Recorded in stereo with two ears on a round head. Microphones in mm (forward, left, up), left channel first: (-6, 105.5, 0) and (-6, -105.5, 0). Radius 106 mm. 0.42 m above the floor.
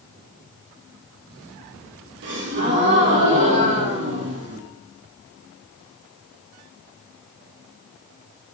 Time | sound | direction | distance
2.2 | a gasp | 50° right (ahead or behind) | 9.5 m